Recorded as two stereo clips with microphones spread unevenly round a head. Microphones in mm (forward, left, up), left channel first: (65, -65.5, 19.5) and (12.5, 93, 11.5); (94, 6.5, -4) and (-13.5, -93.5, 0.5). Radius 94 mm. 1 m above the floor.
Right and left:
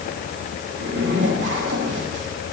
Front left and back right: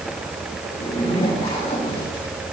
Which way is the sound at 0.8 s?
105° left.